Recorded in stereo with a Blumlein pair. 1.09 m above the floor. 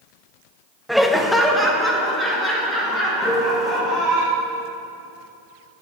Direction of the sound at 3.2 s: 5° left.